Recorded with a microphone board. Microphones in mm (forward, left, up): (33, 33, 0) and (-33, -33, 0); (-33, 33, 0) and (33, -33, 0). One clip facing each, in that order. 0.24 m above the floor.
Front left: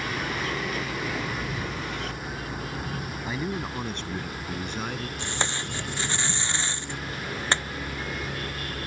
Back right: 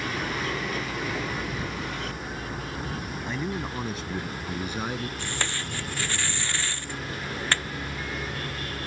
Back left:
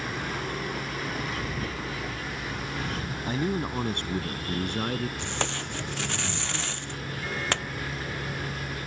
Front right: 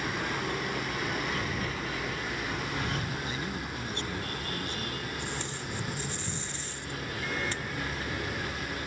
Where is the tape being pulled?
115° left.